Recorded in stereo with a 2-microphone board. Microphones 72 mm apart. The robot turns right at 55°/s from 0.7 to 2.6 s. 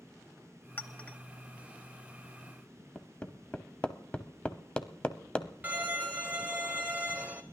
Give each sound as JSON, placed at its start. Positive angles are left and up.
{"t": 0.8, "sound": "a clink", "side_deg": 30, "distance_m": 1.2}
{"t": 3.0, "sound": "hammering", "side_deg": 15, "distance_m": 0.9}
{"t": 5.6, "sound": "a violin", "side_deg": -20, "distance_m": 1.2}